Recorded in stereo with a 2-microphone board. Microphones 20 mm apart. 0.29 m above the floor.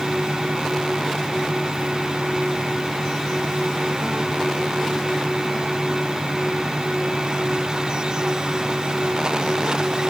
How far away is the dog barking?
I don't hear a dog barking.